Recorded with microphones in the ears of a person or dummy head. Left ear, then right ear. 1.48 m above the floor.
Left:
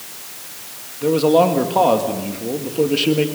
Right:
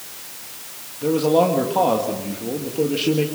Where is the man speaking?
15° left (ahead or behind), 1.8 m.